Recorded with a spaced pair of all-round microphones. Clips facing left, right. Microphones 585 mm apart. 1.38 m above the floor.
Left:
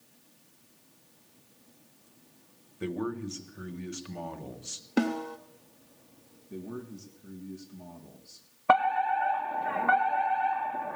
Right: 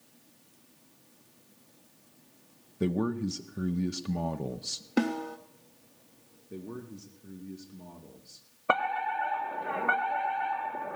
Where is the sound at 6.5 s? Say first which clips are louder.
Left 1 dB; 10° left (ahead or behind), 2 m.